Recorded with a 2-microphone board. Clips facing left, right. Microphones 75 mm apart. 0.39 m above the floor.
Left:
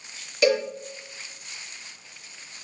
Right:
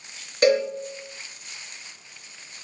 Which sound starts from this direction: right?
A cowbell, at 0.4 s.